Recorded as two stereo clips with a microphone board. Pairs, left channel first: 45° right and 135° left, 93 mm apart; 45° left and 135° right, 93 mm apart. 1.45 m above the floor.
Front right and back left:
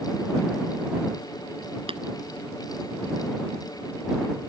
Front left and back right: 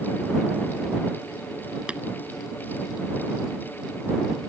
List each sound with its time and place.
1.9 s tapping: 145° left